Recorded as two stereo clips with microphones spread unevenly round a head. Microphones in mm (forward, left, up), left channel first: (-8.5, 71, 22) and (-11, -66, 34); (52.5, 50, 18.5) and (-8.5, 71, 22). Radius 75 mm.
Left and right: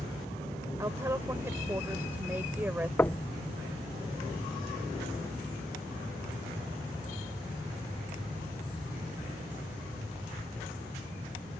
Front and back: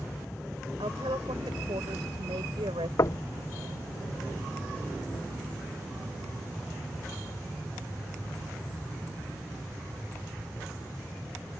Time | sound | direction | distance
0.8 | a woman speaking | 160° right | ?
3.0 | knocking | 10° left | ?